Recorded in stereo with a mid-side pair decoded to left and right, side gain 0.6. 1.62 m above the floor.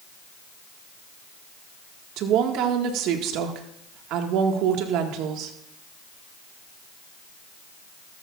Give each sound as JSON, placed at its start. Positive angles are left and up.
{"t": 2.2, "sound": "a woman speaking", "azimuth_deg": -70, "distance_m": 1.8}